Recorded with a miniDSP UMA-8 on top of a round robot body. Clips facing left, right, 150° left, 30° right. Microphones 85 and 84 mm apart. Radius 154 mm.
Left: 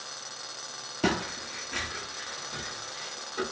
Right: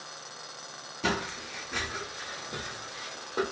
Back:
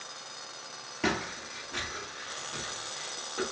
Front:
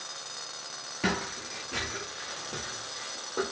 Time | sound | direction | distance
1.0 | footsteps | 60° left | 0.5 m